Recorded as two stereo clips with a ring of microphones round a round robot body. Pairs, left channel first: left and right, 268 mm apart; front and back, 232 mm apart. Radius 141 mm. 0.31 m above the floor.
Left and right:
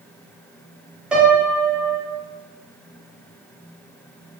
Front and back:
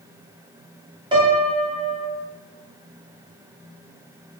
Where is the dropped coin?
I don't hear a dropped coin.